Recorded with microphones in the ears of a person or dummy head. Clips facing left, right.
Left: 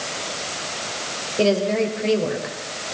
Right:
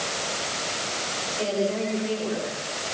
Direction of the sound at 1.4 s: 80° left.